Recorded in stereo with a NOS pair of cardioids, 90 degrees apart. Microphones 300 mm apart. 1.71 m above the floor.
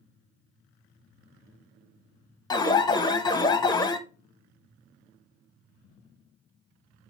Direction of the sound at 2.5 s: 15° left.